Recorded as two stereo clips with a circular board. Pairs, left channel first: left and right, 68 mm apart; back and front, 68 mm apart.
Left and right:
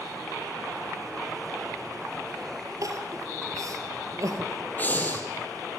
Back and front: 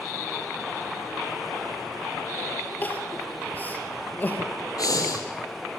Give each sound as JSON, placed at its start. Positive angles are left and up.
{"t": 2.8, "sound": "crying", "azimuth_deg": -120, "distance_m": 3.0}
{"t": 4.8, "sound": "breathing", "azimuth_deg": 155, "distance_m": 4.0}